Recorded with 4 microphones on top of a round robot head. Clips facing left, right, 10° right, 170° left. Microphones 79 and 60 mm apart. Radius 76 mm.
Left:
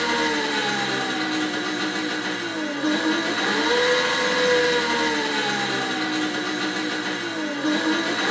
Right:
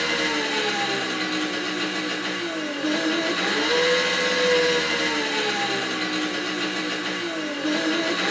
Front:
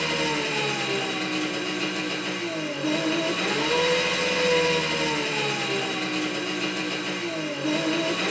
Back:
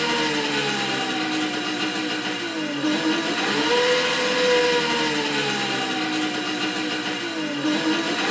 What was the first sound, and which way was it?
An engine running, 155° left.